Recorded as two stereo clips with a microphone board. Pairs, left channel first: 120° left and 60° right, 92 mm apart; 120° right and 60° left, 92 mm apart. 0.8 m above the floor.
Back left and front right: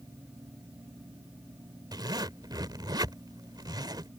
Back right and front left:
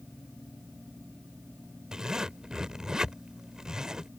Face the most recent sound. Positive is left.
turn(degrees=-20)